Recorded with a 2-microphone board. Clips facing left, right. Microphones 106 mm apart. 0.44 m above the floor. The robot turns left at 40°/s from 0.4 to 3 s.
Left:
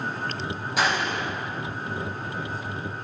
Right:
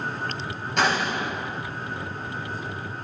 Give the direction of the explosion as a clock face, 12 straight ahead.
12 o'clock.